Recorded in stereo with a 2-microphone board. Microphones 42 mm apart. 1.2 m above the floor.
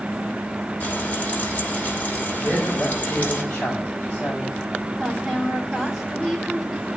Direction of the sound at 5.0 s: Centre (ahead or behind).